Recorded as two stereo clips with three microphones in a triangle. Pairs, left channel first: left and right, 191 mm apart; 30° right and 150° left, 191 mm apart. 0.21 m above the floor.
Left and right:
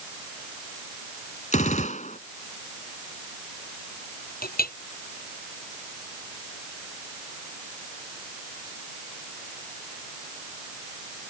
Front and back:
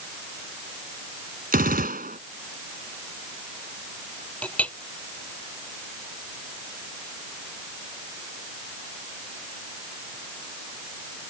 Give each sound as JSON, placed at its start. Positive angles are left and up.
{"t": 1.5, "sound": "a gunshot", "azimuth_deg": 130}
{"t": 4.4, "sound": "a clink", "azimuth_deg": 55}